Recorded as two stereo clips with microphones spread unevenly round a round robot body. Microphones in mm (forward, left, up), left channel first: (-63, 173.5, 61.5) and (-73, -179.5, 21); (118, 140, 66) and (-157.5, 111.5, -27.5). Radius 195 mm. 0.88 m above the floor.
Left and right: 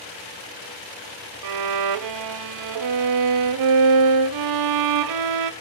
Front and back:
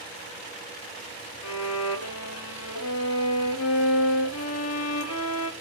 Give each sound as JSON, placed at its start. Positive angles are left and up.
{"t": 1.4, "sound": "a violin", "azimuth_deg": -50, "distance_m": 0.6}